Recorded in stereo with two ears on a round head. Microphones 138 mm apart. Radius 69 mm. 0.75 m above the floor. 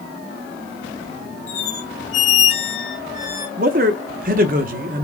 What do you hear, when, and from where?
1.5 s a squeak: 45° left (ahead or behind), 2.0 m
3.6 s a man speaking: 60° right (ahead or behind), 1.1 m